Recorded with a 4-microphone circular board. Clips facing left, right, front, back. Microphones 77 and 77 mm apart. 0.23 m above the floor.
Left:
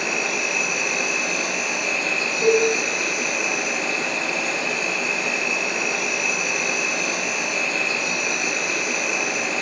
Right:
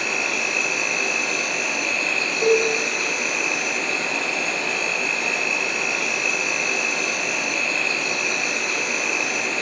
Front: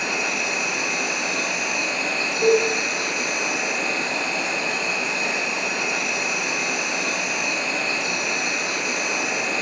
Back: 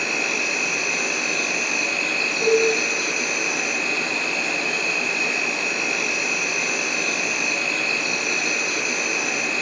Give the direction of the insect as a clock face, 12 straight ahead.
11 o'clock.